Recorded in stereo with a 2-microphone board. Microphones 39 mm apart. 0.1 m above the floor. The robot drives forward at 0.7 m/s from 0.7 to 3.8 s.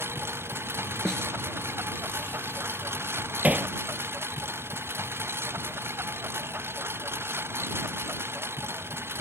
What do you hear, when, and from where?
0.0 s a lawn mower: 85° right; by 9.2 s 90° right
1.1 s a snare drum: 15° left (ahead or behind)
3.4 s hammering: 45° right (ahead or behind); by 3.7 s 35° right (ahead or behind)